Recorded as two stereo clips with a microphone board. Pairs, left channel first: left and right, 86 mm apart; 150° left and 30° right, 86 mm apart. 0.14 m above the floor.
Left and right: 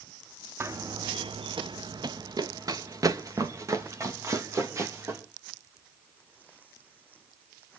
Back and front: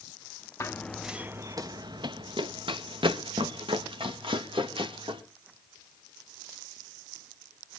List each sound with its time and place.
0.6 s running footsteps: 150° right, 0.6 m; by 5.2 s 35° right, 3 m